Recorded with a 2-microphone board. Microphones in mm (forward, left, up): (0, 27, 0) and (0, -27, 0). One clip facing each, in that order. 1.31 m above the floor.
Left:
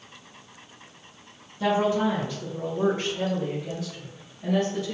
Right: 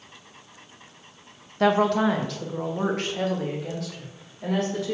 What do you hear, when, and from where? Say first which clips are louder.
1.6 s a woman speaking: right 3 dB; 60° right (ahead or behind), 1.0 m; by 5.0 s 90° right, 3 m